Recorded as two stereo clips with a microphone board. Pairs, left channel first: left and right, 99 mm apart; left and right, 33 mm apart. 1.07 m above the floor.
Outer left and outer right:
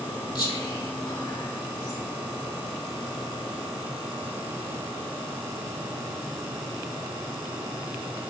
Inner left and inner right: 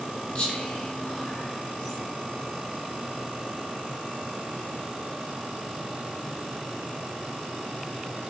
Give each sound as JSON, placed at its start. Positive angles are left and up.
{"t": 0.3, "sound": "whispering", "side_deg": 45, "distance_m": 2.0}